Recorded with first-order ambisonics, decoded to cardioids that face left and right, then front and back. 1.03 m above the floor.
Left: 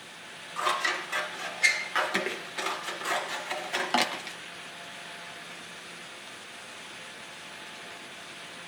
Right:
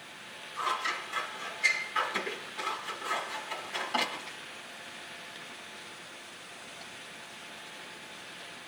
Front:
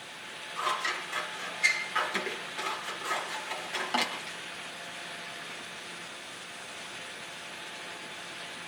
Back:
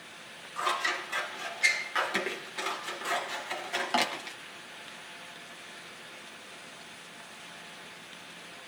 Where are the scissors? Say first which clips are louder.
Left 4 dB, back 1 dB; 105° left, 0.7 m.